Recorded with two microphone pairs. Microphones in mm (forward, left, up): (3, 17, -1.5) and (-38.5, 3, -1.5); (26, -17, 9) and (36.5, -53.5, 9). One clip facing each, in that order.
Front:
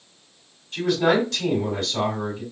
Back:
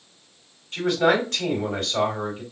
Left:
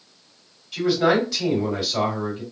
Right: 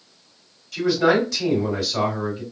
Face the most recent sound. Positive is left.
turn(degrees=180)